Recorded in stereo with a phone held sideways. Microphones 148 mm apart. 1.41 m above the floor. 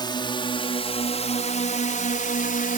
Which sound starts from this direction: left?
A drone, at 0.0 s.